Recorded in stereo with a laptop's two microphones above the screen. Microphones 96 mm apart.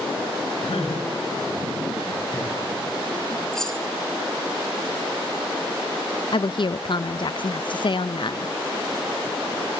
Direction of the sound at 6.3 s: 55° left (ahead or behind).